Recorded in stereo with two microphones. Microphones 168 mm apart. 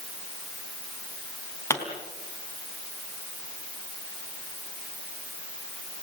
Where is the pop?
15° left (ahead or behind), 4 m.